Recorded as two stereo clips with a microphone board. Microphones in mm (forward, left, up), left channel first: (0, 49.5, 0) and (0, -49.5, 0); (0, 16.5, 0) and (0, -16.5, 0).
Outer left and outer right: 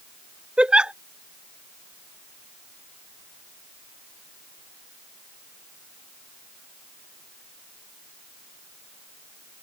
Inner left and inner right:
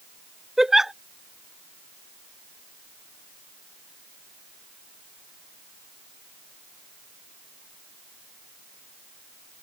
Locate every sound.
0.6 s a giggle: 10° right (ahead or behind)